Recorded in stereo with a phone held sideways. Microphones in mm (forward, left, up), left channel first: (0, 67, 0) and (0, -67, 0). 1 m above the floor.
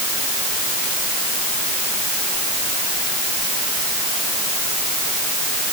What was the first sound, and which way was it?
Only background noise.